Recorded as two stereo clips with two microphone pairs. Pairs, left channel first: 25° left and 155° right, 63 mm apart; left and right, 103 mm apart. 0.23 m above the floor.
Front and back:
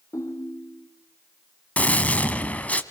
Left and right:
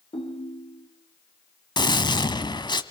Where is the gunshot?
85° left, 1.5 m.